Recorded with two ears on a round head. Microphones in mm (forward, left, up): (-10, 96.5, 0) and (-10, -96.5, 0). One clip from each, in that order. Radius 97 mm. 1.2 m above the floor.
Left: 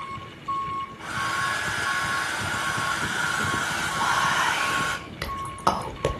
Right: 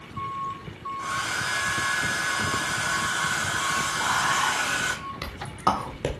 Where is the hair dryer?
85° right, 1.8 m.